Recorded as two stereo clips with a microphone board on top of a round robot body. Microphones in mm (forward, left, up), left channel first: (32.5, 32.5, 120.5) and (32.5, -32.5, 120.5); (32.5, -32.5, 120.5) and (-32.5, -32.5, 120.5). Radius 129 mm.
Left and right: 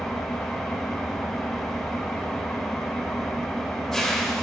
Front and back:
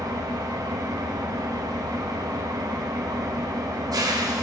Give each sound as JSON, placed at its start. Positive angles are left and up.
{"t": 0.0, "sound": "an engine running", "azimuth_deg": 180, "distance_m": 1.5}